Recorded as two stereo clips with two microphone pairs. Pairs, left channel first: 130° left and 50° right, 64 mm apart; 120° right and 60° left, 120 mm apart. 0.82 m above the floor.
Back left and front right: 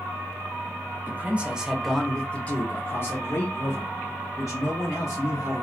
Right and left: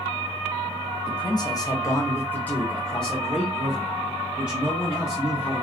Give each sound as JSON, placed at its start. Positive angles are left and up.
{"t": 1.1, "sound": "a man speaking", "azimuth_deg": -100, "distance_m": 0.9}